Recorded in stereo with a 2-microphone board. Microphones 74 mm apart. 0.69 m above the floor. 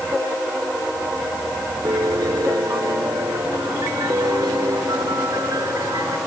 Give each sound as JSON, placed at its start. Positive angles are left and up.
{"t": 1.9, "sound": "a piano", "side_deg": -60}